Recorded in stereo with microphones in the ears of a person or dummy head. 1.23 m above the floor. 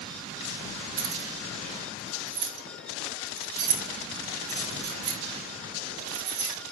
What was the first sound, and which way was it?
Keys jangling, 80° right.